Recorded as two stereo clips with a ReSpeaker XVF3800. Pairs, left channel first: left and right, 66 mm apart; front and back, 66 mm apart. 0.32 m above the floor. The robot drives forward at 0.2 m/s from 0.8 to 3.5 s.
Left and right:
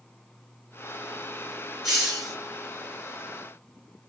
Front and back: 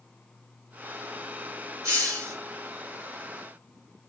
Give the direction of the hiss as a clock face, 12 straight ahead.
6 o'clock.